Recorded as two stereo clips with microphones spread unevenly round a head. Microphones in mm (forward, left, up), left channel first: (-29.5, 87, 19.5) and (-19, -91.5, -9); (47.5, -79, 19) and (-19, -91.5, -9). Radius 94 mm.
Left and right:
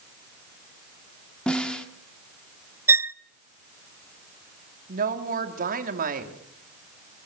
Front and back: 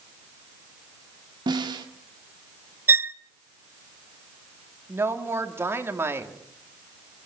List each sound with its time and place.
1.5 s a snare drum: straight behind, 1.8 m
2.9 s a violin: 155° right, 0.6 m
4.9 s a woman speaking: 125° right, 3 m